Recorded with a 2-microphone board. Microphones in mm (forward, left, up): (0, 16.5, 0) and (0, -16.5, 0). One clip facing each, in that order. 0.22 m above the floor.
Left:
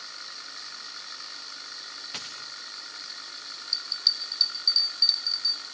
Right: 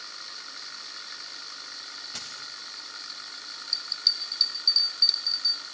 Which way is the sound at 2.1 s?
70° left (ahead or behind).